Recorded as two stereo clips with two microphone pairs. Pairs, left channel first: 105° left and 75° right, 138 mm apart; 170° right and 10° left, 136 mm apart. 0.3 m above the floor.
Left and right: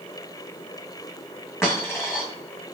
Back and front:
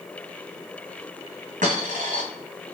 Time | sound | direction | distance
1.6 | a dropped coin | 30° left | 1.7 m